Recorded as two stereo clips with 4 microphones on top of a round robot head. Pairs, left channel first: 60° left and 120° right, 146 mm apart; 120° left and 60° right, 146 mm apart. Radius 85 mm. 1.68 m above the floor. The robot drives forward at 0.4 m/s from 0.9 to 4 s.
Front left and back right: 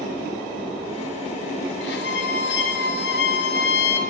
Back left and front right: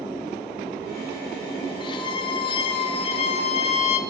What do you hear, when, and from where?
1.8 s a violin: 60° left, 4 m; by 4.0 s 75° left, 4 m